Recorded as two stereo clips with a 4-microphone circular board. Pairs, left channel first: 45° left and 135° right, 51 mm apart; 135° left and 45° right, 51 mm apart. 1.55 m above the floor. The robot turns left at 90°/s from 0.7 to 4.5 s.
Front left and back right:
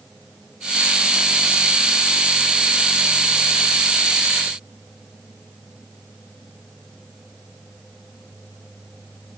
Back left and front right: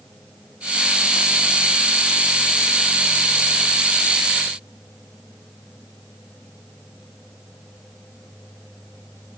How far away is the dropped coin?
I don't hear a dropped coin.